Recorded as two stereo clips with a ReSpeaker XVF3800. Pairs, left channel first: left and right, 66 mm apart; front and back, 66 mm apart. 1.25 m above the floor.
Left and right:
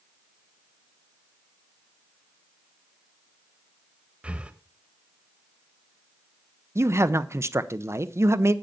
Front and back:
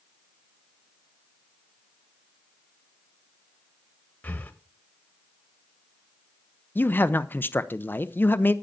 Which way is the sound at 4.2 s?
35° right.